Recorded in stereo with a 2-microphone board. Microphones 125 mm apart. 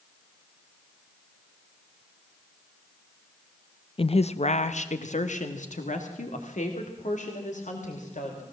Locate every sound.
4.0 s a woman speaking: 45° left (ahead or behind), 0.6 m; by 8.4 s 85° left, 4 m